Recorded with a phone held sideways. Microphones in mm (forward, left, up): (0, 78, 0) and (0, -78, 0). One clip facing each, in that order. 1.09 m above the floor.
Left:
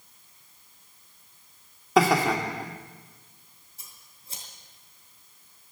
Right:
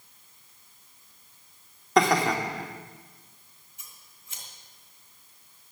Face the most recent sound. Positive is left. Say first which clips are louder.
# even
turn(degrees=35)  # may be behind; listen again after turning